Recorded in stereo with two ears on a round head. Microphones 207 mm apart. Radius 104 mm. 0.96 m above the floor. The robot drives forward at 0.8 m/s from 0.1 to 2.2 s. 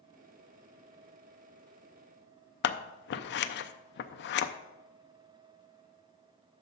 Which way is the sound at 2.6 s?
50° left (ahead or behind).